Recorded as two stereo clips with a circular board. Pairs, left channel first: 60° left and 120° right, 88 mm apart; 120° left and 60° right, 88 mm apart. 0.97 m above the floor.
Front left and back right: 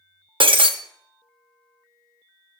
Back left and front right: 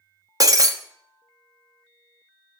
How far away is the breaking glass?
About 0.7 m.